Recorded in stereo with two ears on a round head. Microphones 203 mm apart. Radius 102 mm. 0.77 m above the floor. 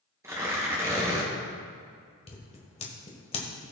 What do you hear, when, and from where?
0.2 s tearing paper: 10° right (ahead or behind), 3 m
2.3 s scissors: 25° left (ahead or behind), 1.5 m